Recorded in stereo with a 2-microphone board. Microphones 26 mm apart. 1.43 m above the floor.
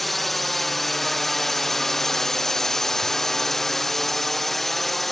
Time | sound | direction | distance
0.0 | a drone | 10° left (ahead or behind) | ?